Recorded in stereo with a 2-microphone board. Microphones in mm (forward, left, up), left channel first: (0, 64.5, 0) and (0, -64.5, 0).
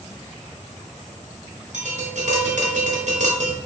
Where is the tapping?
70° right (ahead or behind), 1.2 m.